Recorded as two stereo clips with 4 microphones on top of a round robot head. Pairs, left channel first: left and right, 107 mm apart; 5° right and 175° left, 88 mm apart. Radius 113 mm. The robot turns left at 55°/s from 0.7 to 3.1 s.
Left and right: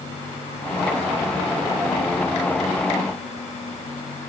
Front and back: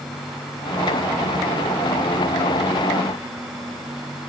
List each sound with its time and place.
Only background noise.